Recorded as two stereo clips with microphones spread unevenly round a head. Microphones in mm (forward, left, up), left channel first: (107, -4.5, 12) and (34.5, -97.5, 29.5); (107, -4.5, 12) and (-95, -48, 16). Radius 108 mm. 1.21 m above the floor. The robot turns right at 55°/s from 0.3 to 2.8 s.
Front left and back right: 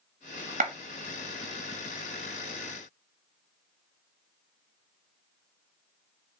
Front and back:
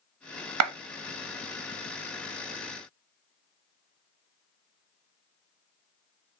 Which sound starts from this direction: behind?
A clap, at 0.6 s.